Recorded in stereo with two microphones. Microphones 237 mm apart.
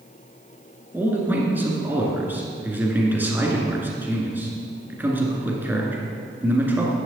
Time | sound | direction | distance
0.9 | a man speaking | 10° right (ahead or behind) | 1.9 m